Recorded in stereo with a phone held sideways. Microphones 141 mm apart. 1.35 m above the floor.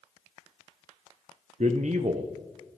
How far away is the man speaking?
About 0.5 m.